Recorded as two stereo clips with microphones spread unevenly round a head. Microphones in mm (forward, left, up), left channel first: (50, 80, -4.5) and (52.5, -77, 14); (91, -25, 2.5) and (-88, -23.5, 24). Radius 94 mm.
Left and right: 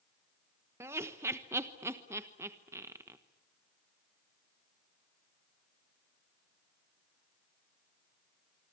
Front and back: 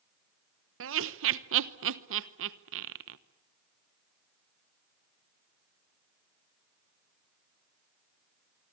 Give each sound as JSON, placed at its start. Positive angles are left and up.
{"t": 0.8, "sound": "laughter", "azimuth_deg": -165, "distance_m": 1.1}